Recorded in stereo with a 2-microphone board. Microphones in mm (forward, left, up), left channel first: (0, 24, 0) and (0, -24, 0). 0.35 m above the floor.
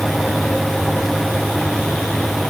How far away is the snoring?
I don't hear snoring.